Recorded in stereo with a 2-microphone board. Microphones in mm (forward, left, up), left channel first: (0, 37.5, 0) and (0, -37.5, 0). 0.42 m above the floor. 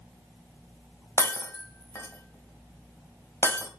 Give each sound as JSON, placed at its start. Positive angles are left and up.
{"t": 1.2, "sound": "breaking glass", "side_deg": 35, "distance_m": 1.3}